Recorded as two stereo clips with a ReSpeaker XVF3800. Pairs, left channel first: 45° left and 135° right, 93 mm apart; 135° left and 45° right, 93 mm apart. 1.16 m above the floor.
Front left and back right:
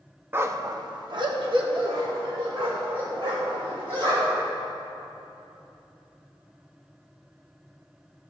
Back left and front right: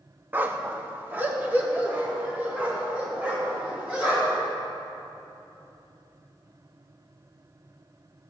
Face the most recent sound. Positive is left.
turn(degrees=-115)